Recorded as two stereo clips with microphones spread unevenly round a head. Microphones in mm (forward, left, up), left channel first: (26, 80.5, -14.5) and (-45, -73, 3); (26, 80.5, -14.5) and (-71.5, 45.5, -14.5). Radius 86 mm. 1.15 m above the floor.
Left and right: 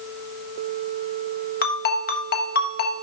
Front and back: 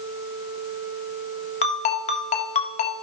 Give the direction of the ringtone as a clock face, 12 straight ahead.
11 o'clock.